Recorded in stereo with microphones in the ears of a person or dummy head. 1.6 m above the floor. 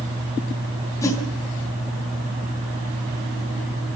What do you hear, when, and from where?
1.0 s a whoosh: 15° left (ahead or behind), 2.5 m